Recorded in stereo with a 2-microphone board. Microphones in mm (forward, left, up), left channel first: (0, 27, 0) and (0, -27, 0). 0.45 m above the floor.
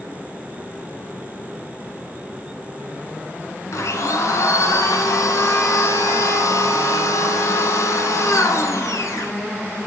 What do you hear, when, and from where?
3.7 s a blender: 80° left, 1.8 m